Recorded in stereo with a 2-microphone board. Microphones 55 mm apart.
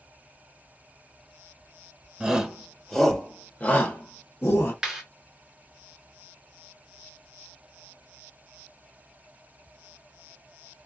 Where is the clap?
10° right (ahead or behind), 2.5 m.